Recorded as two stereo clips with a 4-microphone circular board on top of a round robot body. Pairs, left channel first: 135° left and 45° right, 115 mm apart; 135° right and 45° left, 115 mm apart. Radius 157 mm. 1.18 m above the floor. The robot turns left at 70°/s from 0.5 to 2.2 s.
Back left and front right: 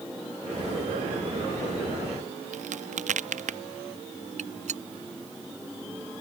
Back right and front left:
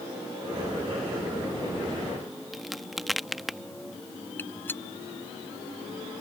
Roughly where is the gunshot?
Ahead right.